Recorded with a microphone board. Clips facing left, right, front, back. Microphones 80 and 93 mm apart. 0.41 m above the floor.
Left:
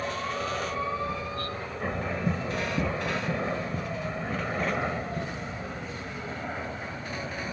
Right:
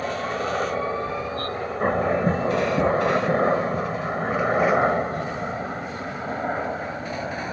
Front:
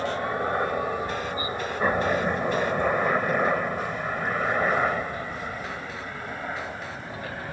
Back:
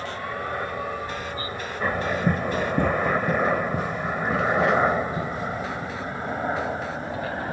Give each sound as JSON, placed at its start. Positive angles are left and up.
{"t": 0.0, "sound": "a helicopter", "azimuth_deg": -55}
{"t": 2.3, "sound": "running footsteps", "azimuth_deg": -135}